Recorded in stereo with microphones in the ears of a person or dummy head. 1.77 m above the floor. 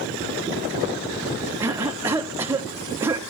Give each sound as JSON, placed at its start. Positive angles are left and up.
{"t": 1.6, "sound": "a cough", "side_deg": -15, "distance_m": 0.7}